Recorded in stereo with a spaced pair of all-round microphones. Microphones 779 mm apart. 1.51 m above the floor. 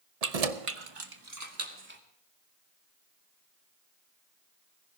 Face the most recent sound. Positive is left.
turn(degrees=-15)  # may be behind; listen again after turning